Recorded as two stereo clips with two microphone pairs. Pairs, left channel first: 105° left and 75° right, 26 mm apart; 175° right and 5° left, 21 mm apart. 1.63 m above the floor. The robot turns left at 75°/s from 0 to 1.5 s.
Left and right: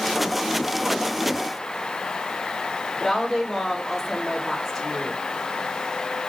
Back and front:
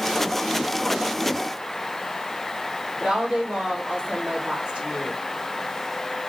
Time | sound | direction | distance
3.0 | a woman speaking | 30° left | 4 m